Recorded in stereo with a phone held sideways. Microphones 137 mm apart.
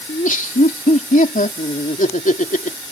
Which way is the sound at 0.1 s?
75° left (ahead or behind).